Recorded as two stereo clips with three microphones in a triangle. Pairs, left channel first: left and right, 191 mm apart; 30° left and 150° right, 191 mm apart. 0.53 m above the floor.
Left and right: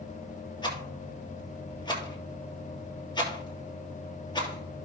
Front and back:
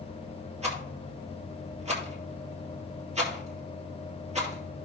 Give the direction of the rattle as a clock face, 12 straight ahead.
7 o'clock.